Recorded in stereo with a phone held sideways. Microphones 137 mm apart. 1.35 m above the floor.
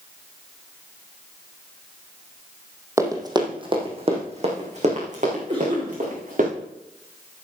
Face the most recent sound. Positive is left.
turn(degrees=-50)  # may be behind; listen again after turning